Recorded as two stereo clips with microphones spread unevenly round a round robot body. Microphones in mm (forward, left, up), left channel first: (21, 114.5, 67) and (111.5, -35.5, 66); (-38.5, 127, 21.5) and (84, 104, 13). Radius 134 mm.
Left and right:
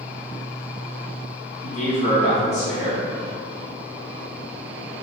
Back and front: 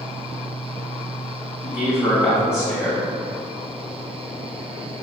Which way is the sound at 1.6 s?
105° left.